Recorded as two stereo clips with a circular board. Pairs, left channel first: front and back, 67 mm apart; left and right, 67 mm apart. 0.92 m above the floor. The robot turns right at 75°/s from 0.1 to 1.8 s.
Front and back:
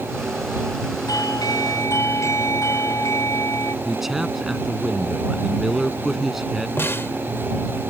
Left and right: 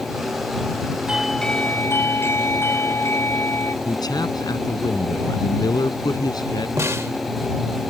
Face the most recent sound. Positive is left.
turn(degrees=-50)